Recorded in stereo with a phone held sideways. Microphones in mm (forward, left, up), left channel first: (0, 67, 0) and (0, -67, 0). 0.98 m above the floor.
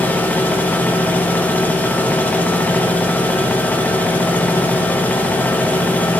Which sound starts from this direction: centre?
A machine running, at 0.0 s.